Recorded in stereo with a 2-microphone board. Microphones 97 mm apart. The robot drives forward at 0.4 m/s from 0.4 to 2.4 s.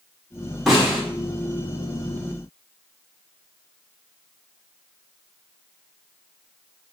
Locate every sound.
0.7 s a snare drum: centre (ahead or behind), 1.3 m